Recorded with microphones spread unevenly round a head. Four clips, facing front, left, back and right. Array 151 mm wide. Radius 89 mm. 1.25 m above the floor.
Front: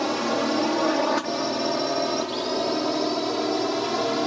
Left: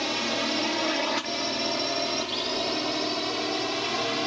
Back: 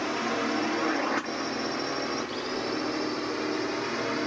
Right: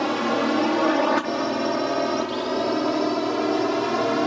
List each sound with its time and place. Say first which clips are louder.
0.0 s a drone: right 7 dB, front 5 dB; 85° right; by 4.3 s 90° right